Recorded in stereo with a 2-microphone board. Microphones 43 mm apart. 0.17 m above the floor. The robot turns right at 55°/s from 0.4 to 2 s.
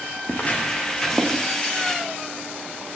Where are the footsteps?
40° left (ahead or behind), 4.5 m; by 1.4 s 5° right (ahead or behind), 5.5 m.